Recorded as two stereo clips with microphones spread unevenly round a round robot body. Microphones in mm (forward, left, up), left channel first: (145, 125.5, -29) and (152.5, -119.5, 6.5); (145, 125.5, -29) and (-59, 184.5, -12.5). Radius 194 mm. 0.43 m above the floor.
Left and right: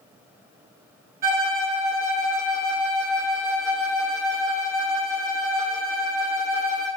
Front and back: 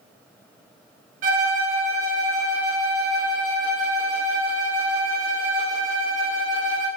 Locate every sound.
1.2 s a violin: 160° right, 2.0 m